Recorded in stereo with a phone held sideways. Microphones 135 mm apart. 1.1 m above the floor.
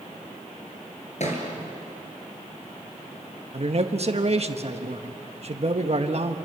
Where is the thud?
55° left (ahead or behind), 4 m.